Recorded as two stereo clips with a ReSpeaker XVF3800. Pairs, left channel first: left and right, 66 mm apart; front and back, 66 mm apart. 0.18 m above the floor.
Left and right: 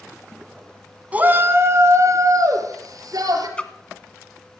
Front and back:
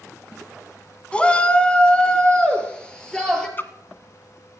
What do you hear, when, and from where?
1.1 s a shout: 50° right, 1.4 m; by 3.5 s 80° right, 4 m
3.6 s a splash: 30° left, 1.1 m